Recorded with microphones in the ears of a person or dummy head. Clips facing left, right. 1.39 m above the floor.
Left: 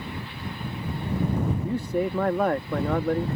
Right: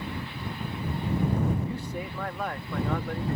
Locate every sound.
1.6 s a man speaking: 50° left (ahead or behind)